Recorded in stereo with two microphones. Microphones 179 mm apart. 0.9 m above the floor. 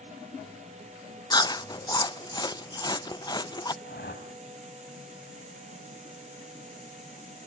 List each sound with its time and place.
1.3 s chewing: 20° left (ahead or behind), 0.5 m
3.8 s a whoosh: 65° left (ahead or behind), 4 m